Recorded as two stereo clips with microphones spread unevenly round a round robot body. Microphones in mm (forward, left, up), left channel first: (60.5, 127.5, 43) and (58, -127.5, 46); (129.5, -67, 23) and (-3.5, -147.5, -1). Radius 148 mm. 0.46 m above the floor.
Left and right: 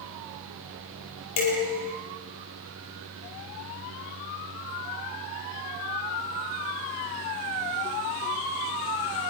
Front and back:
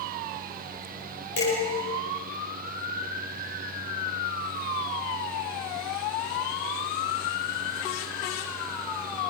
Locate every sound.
1.4 s dishes clattering: 80° left, 10 m